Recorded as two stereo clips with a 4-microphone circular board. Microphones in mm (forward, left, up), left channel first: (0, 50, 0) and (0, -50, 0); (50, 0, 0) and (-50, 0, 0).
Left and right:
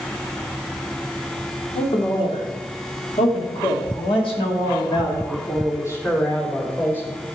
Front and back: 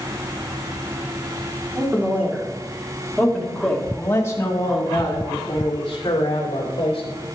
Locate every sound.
1.8 s a man speaking: 115° left, 2.5 m; by 7.1 s 20° left, 3.5 m